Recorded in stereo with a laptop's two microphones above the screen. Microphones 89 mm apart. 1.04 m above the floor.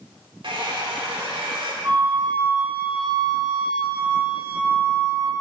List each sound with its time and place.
0.4 s a hair dryer: 65° right (ahead or behind), 1.2 m
1.8 s a flute: 55° right (ahead or behind), 1.3 m